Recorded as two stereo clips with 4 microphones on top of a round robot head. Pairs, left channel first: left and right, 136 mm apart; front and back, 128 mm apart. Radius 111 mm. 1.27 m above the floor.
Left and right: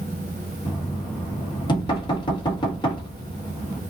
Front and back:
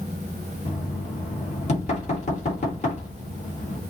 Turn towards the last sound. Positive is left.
turn(degrees=35)